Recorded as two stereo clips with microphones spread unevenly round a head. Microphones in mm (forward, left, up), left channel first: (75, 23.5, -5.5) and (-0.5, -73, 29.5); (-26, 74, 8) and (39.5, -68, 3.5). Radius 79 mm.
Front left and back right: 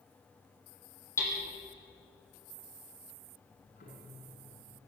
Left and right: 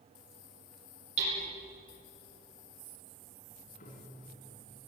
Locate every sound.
1.2 s hammering: 15° right, 9.5 m
3.4 s ticking: 75° left, 6 m